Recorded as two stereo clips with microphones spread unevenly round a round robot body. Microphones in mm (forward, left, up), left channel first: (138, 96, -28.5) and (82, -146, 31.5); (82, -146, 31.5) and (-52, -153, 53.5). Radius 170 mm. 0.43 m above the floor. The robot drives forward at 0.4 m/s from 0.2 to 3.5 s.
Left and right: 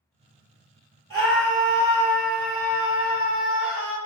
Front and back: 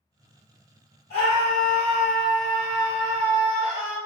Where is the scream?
30° left, 1.5 m; by 4.0 s 120° left, 1.3 m.